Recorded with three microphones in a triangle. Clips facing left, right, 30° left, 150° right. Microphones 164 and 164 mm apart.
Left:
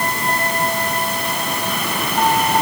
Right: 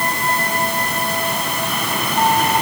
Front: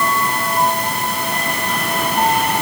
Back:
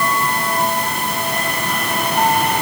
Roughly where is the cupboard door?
No cupboard door in this recording.